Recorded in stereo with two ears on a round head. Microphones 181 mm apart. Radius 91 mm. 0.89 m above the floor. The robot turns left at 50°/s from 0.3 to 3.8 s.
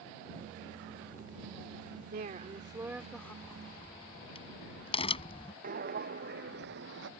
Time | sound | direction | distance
2.1 | a woman speaking | 130° right | ?
3.4 | a crack | 10° left (ahead or behind) | ?
5.6 | footsteps | 45° right (ahead or behind) | ?